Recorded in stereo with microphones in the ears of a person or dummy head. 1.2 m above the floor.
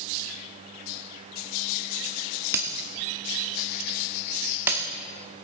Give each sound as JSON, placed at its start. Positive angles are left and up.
{"t": 2.5, "sound": "breaking glass", "side_deg": -10, "distance_m": 0.8}